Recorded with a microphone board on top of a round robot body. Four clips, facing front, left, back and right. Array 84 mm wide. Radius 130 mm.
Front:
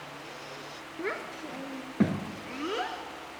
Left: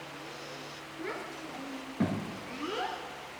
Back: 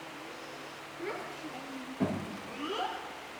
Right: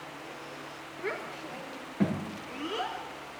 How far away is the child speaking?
About 4.5 m.